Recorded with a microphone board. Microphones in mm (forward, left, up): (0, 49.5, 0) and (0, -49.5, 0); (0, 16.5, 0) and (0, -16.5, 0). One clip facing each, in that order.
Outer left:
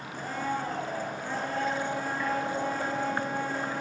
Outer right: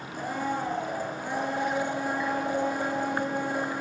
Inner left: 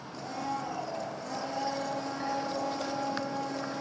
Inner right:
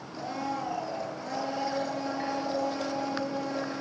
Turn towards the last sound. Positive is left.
turn(degrees=-15)  # may be behind; listen again after turning